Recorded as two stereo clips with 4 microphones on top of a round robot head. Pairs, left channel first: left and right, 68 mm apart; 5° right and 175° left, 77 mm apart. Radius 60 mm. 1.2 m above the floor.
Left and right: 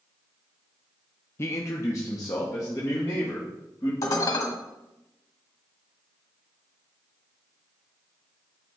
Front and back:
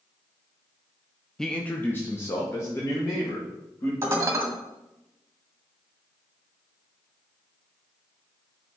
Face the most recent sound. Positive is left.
turn(degrees=115)